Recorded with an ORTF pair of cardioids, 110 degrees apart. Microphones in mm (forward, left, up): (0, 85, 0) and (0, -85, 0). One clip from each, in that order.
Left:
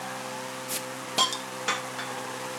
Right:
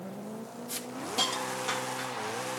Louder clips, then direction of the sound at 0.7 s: Left 2 dB; 45° left.